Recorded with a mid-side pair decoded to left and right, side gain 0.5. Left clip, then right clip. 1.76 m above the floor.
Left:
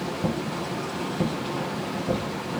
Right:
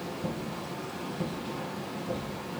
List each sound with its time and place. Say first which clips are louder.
0.0 s a machine running: left 7 dB; 55° left, 1.5 m